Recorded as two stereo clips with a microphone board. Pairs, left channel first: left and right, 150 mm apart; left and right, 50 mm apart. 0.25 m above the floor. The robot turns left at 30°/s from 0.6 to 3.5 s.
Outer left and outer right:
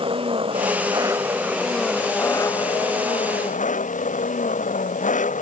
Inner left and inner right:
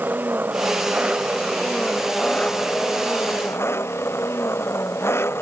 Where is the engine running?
145° right; by 5.4 s 125° left.